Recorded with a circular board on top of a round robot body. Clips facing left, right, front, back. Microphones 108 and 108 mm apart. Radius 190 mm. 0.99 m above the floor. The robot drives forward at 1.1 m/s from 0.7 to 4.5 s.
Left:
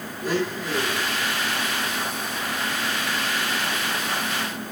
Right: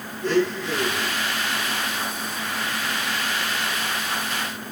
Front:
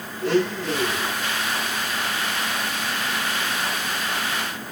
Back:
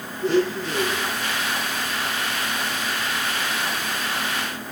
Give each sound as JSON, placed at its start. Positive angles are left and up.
{"t": 0.2, "sound": "a blender", "azimuth_deg": 10, "distance_m": 7.5}